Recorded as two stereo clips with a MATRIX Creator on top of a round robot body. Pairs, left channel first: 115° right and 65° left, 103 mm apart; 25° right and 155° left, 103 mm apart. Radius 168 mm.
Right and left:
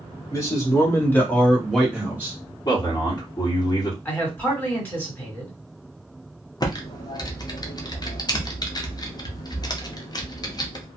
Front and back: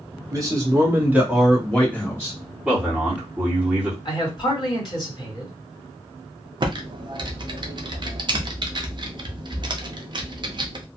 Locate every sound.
0.3 s a man speaking: 155° right, 1.8 m; by 2.4 s 10° left, 1.4 m
2.6 s a man speaking: 130° right, 1.7 m
4.0 s a man speaking: 45° right, 2 m
6.6 s typing on a keyboard: 160° right, 0.7 m